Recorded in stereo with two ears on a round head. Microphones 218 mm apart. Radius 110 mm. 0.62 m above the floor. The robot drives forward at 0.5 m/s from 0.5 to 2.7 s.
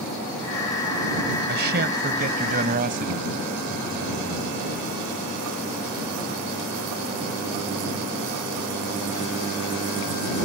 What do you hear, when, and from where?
1.5 s a man speaking: 45° right (ahead or behind); by 4.5 s 40° right (ahead or behind)